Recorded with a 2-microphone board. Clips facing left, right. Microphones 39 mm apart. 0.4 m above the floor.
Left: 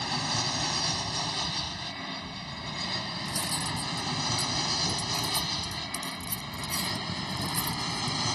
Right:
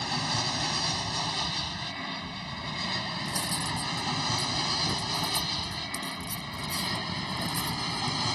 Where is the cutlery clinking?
70° left (ahead or behind).